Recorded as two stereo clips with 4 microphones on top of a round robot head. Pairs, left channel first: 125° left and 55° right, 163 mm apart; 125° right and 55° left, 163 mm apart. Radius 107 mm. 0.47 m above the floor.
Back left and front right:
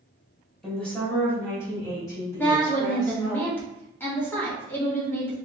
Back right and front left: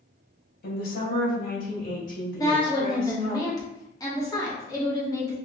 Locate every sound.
0.6 s a woman speaking: 150° right, 1.7 m; by 3.4 s 170° right, 3 m
2.4 s a woman speaking: 170° right, 1.4 m